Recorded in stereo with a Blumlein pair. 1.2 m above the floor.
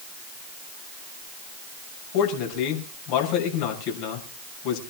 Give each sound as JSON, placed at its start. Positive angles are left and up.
{"t": 2.1, "sound": "a man speaking", "azimuth_deg": 45, "distance_m": 6.0}